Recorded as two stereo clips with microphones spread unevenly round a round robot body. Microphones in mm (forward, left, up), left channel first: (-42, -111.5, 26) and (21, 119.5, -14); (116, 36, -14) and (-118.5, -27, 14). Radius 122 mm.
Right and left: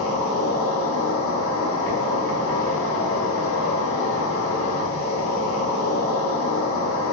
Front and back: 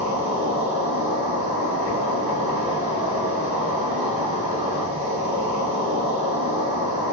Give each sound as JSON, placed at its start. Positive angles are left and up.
{"t": 0.0, "sound": "an insect", "azimuth_deg": -100, "distance_m": 1.3}